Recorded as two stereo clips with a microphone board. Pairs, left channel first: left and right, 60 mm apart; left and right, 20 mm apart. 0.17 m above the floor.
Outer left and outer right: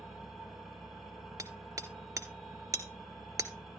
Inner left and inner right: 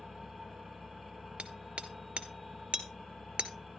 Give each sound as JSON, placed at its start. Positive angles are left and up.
{"t": 0.0, "sound": "an engine running", "side_deg": -5, "distance_m": 3.5}
{"t": 1.4, "sound": "hammering", "side_deg": -65, "distance_m": 1.3}